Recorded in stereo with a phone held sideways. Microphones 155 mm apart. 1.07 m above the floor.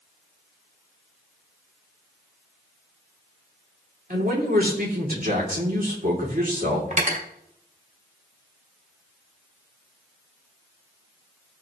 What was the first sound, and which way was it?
A man speaking, 60° right (ahead or behind).